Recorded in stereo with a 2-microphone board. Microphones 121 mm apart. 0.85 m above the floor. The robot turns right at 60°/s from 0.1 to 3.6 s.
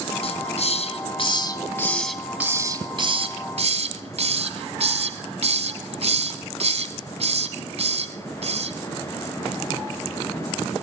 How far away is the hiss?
About 1.1 m.